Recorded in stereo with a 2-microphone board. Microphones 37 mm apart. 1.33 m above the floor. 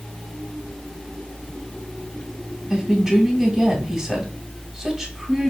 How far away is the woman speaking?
About 2.5 m.